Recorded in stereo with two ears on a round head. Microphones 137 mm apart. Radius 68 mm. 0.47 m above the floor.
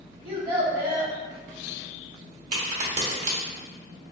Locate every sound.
0.2 s a child speaking: 20° right (ahead or behind), 1.7 m
2.5 s a crack: 45° right (ahead or behind), 0.9 m